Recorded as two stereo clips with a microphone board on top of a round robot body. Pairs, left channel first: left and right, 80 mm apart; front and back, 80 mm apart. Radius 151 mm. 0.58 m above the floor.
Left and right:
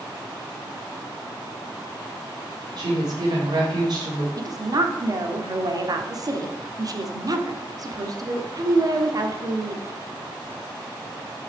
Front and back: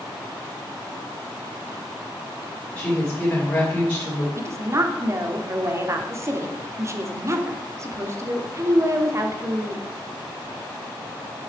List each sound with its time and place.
2.8 s a woman speaking: 75° right, 3 m
4.4 s a woman speaking: 125° right, 1.4 m